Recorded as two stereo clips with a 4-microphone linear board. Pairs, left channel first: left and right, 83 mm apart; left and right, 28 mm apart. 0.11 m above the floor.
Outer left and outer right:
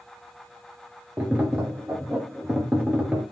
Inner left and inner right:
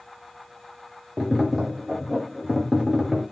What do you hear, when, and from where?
1.2 s tapping: 15° right (ahead or behind), 2 m